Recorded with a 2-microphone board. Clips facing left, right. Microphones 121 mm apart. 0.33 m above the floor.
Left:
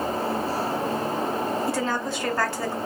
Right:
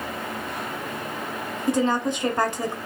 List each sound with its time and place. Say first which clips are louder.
1.7 s a woman speaking: right 4 dB; 20° right (ahead or behind), 1.6 m